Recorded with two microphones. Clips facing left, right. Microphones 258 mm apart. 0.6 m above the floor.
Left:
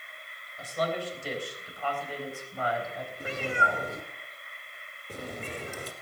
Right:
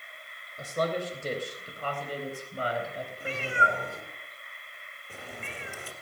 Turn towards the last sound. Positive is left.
turn(degrees=45)  # may be behind; listen again after turning